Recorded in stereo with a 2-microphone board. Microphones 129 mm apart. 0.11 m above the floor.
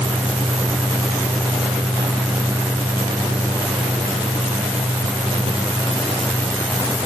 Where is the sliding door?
I don't hear a sliding door.